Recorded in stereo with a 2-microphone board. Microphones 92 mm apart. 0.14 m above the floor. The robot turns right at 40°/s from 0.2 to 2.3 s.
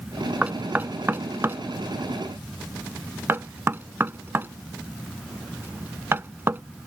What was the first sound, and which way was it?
Knocking, 15° right (ahead or behind).